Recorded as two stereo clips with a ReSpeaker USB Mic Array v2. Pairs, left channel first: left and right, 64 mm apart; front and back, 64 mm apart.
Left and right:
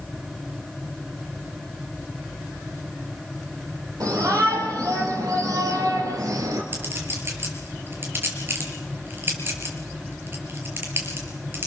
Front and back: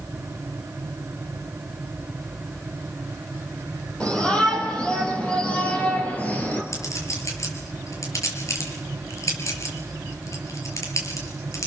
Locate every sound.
4.0 s a shout: 70° right, 9 m; by 6.6 s 65° right, 5 m
6.7 s a clink: 35° right, 5.5 m